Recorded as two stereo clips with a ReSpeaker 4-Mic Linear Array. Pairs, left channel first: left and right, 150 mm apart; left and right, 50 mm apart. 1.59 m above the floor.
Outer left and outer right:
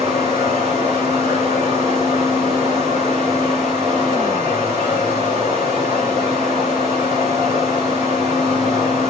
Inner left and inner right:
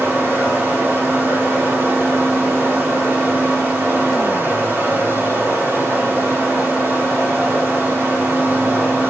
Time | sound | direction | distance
0.0 | running water | 50° right (ahead or behind) | 2.5 m